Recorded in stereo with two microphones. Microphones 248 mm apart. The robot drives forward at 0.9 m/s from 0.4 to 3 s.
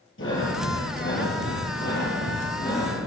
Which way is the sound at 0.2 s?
50° left (ahead or behind).